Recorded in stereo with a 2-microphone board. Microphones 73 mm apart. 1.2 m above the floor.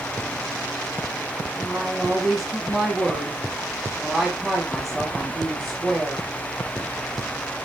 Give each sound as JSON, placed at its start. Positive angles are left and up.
{"t": 1.6, "sound": "a woman speaking", "side_deg": -10, "distance_m": 4.5}